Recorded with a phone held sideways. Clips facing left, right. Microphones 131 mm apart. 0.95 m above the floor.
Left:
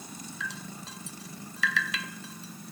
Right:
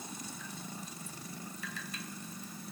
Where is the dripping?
80° left.